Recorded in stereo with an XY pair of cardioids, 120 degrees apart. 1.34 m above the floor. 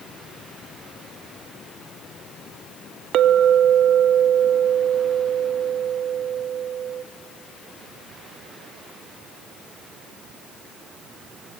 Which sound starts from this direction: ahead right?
A clink, at 3.1 s.